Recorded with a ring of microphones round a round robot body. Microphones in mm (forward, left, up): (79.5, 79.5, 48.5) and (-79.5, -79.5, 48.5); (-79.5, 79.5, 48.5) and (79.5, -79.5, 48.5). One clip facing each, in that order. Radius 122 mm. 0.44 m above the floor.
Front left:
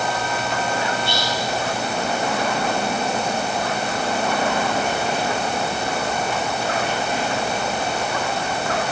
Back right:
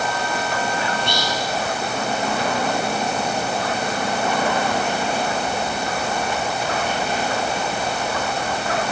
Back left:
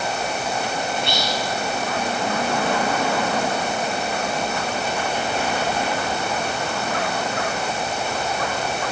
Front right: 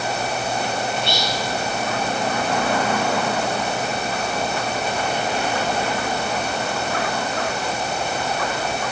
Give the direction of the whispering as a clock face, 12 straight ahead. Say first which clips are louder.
Even, even; 1 o'clock.